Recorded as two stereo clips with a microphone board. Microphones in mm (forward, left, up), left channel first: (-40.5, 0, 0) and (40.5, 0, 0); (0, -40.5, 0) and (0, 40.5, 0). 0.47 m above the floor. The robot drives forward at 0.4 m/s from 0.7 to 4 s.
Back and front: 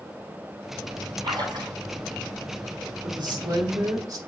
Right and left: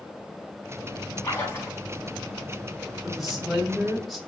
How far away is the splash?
About 4.5 m.